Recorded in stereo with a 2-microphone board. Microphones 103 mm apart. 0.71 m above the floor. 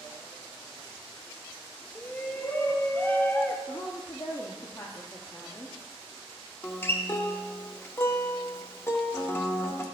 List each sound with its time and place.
1.9 s a shout: 15° left (ahead or behind), 0.6 m
3.7 s a woman speaking: 30° left (ahead or behind), 0.9 m
6.6 s a guitar: 20° left (ahead or behind), 0.8 m